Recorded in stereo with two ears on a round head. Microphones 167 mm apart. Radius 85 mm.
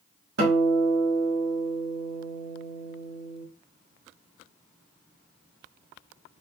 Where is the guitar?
65° right (ahead or behind), 1.7 m.